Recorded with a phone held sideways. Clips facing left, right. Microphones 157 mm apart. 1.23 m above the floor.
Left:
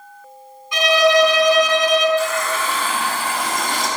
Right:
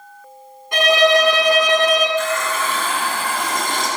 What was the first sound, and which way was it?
A violin, 55° right (ahead or behind).